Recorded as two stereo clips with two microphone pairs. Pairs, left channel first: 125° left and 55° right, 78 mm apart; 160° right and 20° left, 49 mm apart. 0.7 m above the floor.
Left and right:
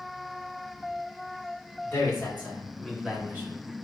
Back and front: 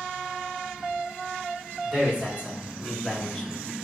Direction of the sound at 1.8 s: 65° left.